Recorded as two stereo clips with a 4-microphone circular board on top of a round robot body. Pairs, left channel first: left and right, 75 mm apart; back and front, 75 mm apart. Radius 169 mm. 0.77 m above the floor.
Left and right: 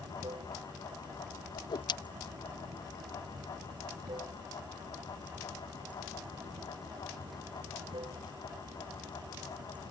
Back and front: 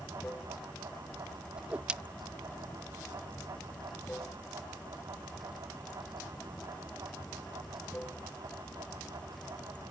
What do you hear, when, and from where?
0.0 s running water: 105° right
1.6 s a whoosh: 75° left